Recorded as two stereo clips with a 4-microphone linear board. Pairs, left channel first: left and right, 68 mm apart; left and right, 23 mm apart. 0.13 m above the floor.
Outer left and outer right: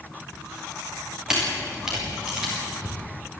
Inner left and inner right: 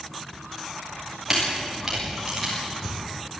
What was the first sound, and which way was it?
A camera shutter, 10° right (ahead or behind).